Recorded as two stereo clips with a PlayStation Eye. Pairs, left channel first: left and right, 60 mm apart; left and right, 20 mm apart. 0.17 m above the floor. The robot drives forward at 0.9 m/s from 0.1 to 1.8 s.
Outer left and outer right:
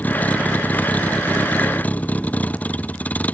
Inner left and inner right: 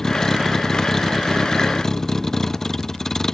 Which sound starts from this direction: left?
A vehicle, at 0.0 s.